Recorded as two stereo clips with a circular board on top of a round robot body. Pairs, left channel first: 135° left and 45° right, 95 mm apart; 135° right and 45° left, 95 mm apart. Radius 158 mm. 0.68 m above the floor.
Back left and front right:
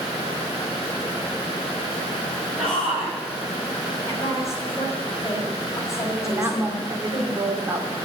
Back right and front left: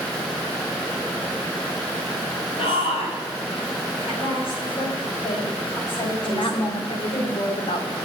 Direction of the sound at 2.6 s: 125° right.